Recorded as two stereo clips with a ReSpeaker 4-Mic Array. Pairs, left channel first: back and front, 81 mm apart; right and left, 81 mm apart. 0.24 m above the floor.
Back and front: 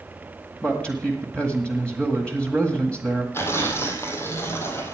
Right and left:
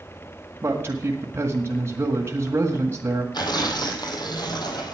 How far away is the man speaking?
About 1.5 m.